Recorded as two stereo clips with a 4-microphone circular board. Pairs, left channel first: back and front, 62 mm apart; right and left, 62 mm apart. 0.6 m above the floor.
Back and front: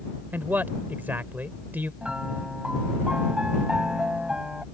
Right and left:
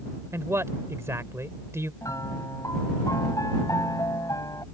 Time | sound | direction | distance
0.3 | a man speaking | 55° left | ?
2.0 | a piano | 75° right | ?